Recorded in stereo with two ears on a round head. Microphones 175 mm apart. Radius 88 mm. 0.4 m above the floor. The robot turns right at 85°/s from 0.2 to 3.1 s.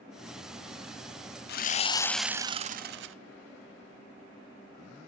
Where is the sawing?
120° left, 0.7 m; by 3.1 s 105° right, 0.7 m.